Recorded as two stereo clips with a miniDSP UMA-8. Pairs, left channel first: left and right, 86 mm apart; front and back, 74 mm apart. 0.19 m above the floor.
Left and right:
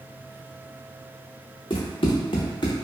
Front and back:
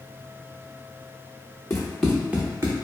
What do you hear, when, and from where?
1.7 s running footsteps: 65° left, 1.1 m; by 2.8 s 135° left, 0.9 m